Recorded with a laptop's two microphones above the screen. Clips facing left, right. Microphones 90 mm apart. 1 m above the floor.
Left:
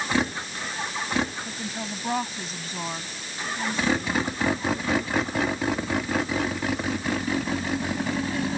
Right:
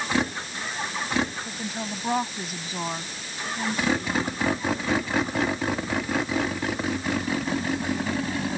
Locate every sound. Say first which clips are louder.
1.4 s a woman speaking: right 1 dB; 5° right (ahead or behind); by 4.5 s 15° right (ahead or behind)